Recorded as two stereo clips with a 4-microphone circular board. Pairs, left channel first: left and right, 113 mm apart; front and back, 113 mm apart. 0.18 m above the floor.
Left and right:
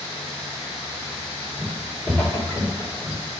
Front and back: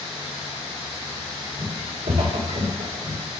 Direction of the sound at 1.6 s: 175° right.